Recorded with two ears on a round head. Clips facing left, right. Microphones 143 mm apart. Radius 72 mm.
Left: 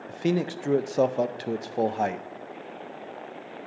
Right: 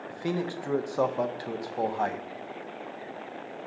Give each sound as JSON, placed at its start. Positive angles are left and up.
{"t": 0.1, "sound": "a man speaking", "side_deg": 25, "distance_m": 0.5}